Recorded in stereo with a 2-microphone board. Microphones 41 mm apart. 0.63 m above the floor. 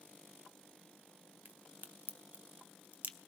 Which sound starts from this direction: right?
A crack, at 1.4 s.